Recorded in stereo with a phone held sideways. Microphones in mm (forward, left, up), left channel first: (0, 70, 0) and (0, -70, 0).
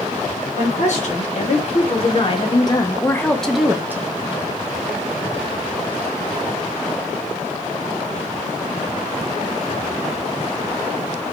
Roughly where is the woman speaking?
Left.